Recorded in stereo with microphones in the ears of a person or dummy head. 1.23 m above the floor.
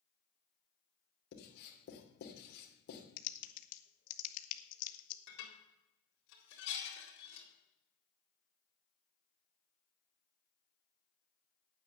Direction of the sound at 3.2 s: 50° left (ahead or behind).